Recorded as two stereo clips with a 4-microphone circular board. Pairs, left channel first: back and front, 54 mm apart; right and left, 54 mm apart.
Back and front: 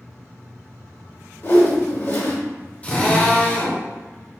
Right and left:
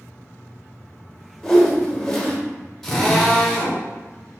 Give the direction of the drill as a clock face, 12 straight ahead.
6 o'clock.